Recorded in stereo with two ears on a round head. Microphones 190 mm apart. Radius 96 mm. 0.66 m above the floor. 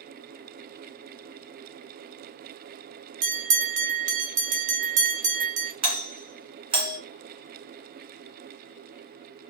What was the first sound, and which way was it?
A bell, 35° right (ahead or behind).